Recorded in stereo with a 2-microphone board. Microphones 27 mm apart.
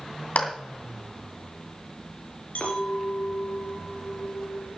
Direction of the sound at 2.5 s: 80° left.